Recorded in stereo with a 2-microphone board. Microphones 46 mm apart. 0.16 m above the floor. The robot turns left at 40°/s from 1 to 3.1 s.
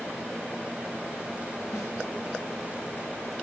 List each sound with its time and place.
1.7 s a snare drum: 80° left, 9.5 m; by 1.9 s 75° left (ahead or behind), 9.5 m